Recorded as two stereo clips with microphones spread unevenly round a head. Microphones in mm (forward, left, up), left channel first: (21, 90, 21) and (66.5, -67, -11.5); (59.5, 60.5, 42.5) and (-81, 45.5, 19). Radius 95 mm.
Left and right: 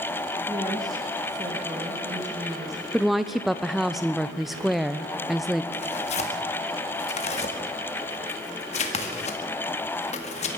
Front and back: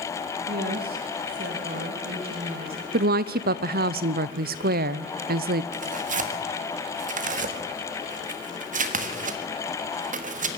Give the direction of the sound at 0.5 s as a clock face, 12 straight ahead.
5 o'clock.